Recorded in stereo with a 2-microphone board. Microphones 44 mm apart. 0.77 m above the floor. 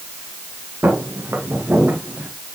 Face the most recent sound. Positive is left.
turn(degrees=-45)  # may be behind; listen again after turning